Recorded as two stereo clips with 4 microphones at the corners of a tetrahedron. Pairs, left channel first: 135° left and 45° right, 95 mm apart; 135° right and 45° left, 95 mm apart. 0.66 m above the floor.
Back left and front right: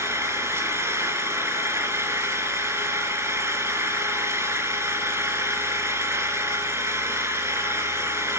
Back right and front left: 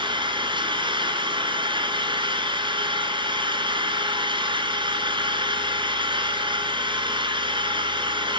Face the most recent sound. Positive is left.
turn(degrees=15)